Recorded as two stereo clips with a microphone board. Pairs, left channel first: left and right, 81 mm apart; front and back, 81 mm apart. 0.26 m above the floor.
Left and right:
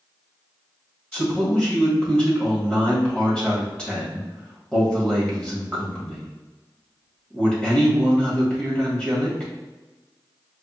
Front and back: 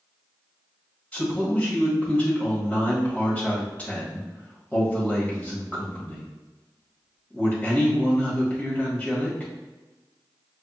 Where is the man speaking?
35° left, 1.2 m.